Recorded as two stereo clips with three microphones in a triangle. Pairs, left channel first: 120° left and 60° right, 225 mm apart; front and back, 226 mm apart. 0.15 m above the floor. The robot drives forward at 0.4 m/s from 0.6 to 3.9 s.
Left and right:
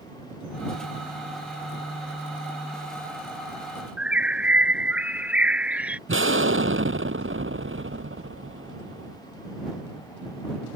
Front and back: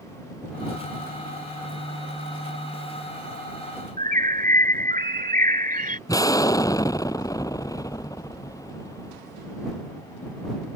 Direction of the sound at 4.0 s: 140° right.